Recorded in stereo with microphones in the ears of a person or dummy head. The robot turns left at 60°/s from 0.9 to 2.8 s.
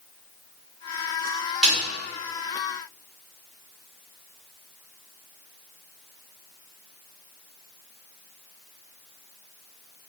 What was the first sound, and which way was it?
A snare drum, centre (ahead or behind).